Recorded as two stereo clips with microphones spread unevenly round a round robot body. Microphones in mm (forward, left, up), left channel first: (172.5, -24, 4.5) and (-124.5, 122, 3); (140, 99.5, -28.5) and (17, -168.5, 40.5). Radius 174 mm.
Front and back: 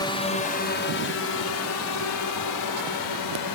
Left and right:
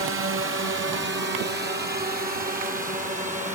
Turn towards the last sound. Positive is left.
turn(degrees=-45)